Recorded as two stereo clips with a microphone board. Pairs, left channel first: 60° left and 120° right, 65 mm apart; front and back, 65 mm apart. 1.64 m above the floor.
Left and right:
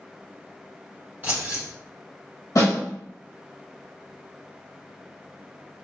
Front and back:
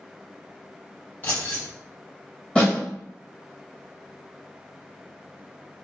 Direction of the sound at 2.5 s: 65° left.